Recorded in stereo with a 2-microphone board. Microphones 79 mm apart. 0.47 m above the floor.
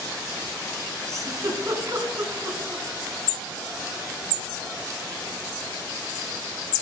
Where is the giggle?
40° right (ahead or behind), 2.5 m.